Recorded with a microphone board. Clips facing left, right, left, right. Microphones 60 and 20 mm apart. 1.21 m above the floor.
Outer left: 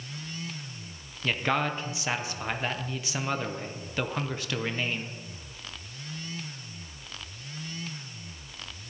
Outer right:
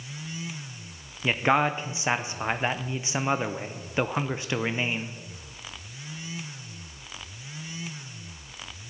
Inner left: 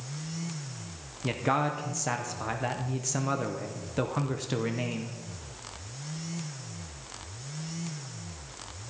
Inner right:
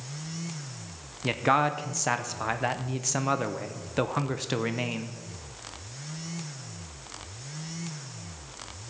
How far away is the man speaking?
About 0.7 m.